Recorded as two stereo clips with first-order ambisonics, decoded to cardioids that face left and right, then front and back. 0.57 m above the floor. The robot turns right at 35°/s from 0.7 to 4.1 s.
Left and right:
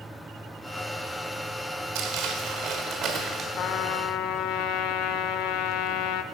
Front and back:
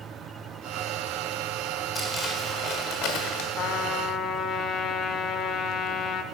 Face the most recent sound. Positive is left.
turn(degrees=60)